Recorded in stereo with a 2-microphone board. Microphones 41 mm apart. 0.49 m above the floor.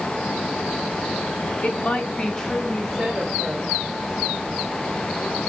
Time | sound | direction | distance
1.6 | a woman speaking | 35° left (ahead or behind) | 1.0 m